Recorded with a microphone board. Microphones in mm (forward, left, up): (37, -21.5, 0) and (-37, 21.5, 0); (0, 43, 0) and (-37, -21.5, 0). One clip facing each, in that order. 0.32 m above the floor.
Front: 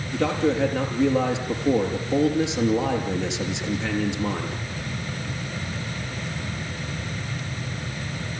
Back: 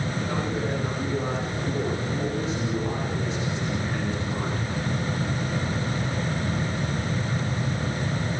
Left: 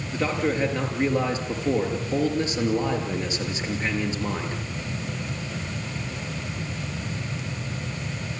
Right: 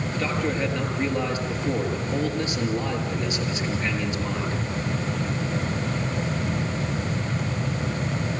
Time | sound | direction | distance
0.1 | a man speaking | 10° right | 6 m